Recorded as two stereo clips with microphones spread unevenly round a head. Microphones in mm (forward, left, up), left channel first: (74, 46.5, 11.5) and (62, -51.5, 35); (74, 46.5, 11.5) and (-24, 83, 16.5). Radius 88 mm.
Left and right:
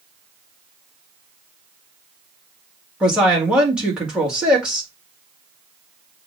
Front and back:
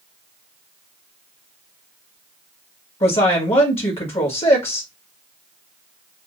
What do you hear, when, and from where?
3.0 s a woman speaking: 10° right, 1.9 m